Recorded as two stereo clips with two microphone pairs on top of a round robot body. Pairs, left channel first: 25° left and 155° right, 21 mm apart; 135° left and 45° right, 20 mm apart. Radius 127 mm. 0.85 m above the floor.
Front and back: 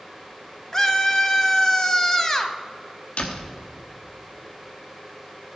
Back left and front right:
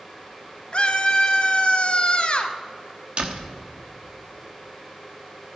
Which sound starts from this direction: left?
A scream, at 0.7 s.